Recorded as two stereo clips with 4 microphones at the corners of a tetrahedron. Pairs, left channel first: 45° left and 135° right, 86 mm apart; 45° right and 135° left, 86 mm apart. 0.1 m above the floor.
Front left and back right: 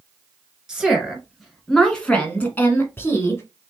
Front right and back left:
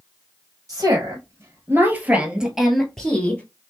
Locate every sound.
0.7 s a woman speaking: 145° left, 1.6 m; by 3.4 s 10° left, 1.4 m